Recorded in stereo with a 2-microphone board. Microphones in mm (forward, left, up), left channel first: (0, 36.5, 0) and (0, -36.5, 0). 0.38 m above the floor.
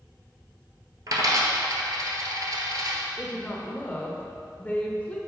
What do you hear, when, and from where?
1.1 s a dropped coin: 55° right (ahead or behind), 1.1 m
3.2 s a woman speaking: 20° left (ahead or behind), 0.9 m